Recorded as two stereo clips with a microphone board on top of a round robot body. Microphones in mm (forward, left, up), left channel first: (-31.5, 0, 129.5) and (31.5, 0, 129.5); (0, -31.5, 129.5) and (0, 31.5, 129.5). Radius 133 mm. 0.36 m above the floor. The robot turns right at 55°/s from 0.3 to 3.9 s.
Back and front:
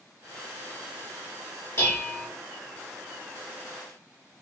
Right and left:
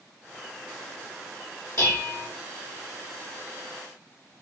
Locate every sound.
1.8 s dishes clattering: 135° right, 1.6 m; by 2.3 s 105° right, 1.6 m